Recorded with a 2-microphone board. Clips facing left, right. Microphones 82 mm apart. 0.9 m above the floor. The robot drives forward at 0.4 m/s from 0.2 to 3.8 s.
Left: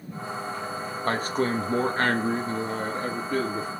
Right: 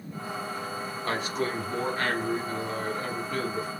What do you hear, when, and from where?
1.0 s a man speaking: 40° left (ahead or behind), 0.8 m; by 3.7 s 30° left (ahead or behind), 1.0 m